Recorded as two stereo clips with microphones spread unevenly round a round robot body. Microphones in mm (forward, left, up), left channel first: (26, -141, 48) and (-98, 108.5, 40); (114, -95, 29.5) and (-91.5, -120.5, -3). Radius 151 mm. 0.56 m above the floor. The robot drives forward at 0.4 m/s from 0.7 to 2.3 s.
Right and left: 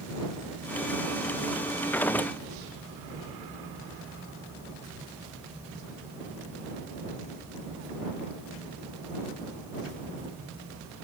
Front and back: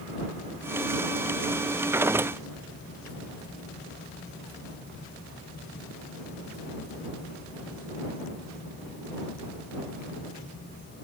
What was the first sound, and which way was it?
Only background noise.